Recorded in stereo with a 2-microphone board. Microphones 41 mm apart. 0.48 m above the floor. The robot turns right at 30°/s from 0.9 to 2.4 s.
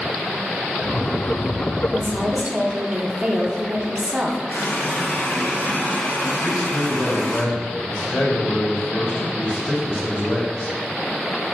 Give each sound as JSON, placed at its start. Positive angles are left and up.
{"t": 1.9, "sound": "a woman speaking", "side_deg": -20, "distance_m": 0.8}
{"t": 4.5, "sound": "a running tap", "side_deg": 55, "distance_m": 2.5}
{"t": 6.4, "sound": "a man speaking", "side_deg": 50, "distance_m": 2.5}